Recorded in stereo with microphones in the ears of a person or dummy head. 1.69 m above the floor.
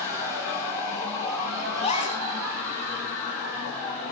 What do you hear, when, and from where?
0.0 s a machine running: 15° right (ahead or behind), 6.5 m
1.8 s a gasp: 35° left (ahead or behind), 1.3 m